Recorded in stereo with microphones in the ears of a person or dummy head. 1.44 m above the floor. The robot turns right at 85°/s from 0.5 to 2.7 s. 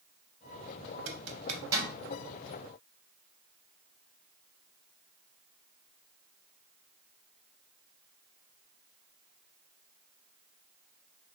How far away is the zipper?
About 0.6 m.